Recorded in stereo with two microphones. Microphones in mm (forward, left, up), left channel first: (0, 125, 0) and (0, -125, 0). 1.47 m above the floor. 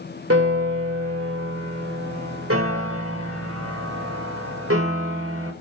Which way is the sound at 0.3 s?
65° right (ahead or behind).